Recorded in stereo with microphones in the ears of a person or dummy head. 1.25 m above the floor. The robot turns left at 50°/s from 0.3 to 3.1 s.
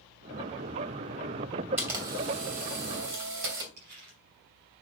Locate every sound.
1.8 s a camera shutter: 10° right, 3.5 m; by 3.7 s 75° right, 3.5 m
3.8 s crumpling: 60° right (ahead or behind), 5 m